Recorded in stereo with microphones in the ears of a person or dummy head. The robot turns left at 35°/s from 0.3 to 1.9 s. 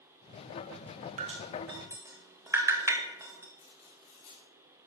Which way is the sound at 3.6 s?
40° left (ahead or behind).